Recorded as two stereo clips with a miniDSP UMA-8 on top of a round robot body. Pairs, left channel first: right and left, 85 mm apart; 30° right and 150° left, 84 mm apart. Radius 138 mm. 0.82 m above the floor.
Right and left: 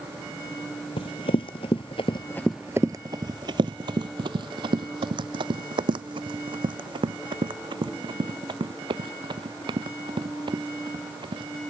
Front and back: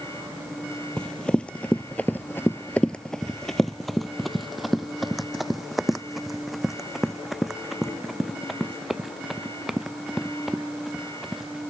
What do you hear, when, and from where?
1.0 s running footsteps: 110° right; by 11.6 s 60° left